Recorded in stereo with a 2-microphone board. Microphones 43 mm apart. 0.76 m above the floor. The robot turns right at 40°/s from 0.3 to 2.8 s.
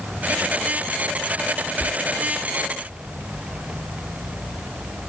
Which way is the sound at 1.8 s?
60° right (ahead or behind).